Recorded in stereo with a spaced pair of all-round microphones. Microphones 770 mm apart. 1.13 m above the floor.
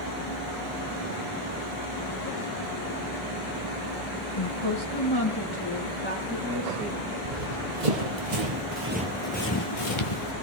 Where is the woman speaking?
55° left (ahead or behind), 1.3 m; by 7.1 s 5° left (ahead or behind), 4 m.